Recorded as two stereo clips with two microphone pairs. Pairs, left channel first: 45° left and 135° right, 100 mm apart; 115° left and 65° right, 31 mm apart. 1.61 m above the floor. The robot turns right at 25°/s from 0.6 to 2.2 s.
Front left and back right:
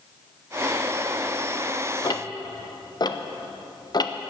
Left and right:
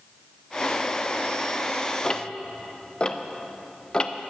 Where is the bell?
I don't hear a bell.